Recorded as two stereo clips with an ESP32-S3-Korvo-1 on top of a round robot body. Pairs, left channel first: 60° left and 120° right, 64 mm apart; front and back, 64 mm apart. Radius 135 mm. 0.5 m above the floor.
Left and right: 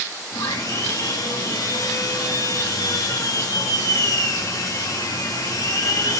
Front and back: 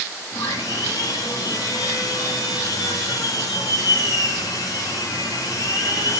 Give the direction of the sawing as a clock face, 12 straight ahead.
11 o'clock.